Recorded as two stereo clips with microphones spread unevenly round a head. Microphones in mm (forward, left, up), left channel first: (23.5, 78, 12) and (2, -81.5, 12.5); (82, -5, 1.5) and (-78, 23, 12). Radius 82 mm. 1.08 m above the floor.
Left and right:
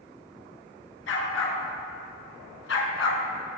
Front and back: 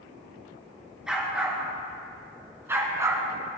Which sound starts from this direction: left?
A dog barking, at 1.1 s.